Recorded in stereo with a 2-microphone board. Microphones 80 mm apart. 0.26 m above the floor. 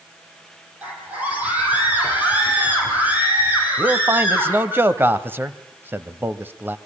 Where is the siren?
No siren in this recording.